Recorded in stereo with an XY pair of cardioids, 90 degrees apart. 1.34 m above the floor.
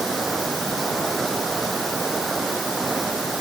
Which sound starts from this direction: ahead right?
Running water, at 0.0 s.